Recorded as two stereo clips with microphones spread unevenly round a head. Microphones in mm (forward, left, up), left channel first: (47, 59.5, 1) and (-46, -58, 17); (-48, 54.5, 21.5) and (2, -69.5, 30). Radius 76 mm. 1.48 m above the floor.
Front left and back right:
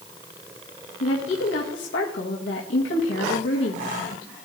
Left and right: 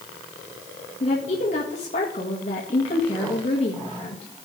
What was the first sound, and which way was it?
A woman speaking, 60° left.